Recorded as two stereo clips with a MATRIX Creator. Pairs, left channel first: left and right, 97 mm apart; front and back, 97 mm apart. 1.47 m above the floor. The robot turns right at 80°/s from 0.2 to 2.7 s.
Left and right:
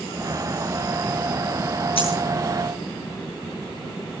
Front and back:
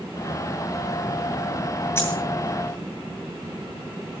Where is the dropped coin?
65° left, 8.5 m; by 2.2 s 80° left, 8.5 m.